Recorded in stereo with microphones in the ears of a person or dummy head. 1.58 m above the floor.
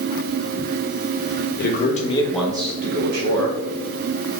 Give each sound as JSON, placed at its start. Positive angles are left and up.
{"t": 1.6, "sound": "a man speaking", "side_deg": 50, "distance_m": 1.0}